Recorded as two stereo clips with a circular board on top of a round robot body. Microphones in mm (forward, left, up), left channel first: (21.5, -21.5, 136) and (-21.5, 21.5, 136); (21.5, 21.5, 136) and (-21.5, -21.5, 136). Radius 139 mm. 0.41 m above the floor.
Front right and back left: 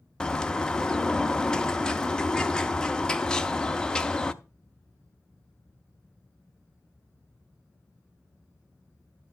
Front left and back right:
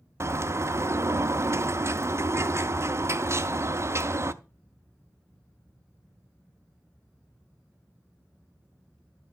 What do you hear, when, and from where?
0.2 s a bird: 120° right, 0.7 m